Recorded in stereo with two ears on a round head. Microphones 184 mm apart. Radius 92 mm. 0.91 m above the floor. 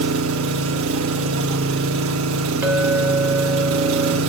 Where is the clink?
10° right (ahead or behind), 2.5 m.